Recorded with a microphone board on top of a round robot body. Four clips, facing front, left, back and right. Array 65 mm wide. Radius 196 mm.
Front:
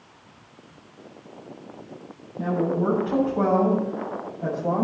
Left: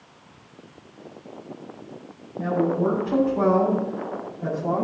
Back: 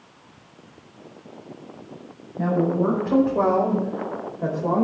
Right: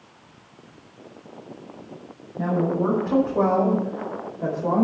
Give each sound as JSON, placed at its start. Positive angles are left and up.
{"t": 2.4, "sound": "a woman speaking", "azimuth_deg": -150, "distance_m": 5.5}